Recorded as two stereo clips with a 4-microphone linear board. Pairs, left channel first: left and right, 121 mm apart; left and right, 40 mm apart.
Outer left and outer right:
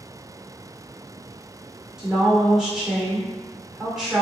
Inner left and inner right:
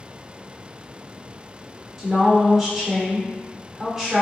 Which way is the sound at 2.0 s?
5° right (ahead or behind).